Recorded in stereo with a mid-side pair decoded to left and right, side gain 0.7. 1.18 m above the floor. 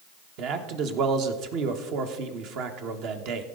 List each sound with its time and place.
0.4 s a man speaking: 60° right, 1.3 m